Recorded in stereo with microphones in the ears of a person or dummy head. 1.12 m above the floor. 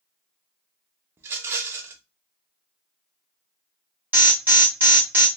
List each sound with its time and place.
1.2 s a rattle: 15° right (ahead or behind), 0.6 m
4.1 s an alarm: 10° right (ahead or behind), 1.0 m